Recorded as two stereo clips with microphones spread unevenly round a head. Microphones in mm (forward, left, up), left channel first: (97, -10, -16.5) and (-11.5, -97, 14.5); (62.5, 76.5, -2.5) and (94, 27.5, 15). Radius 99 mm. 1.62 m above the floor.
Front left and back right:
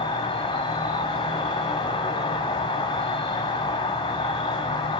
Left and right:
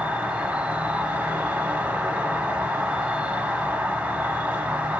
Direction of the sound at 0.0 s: 20° right.